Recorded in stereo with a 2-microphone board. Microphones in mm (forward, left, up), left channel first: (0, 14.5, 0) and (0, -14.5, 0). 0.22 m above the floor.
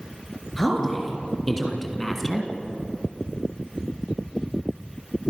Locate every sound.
0.6 s a woman speaking: 15° left (ahead or behind), 4 m; by 2.5 s 10° left (ahead or behind), 2 m